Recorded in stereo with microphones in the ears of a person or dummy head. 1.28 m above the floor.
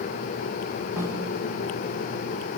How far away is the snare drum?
About 1.9 m.